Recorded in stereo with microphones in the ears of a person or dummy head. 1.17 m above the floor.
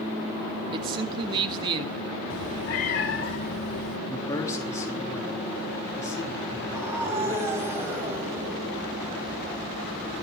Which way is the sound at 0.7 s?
30° right (ahead or behind).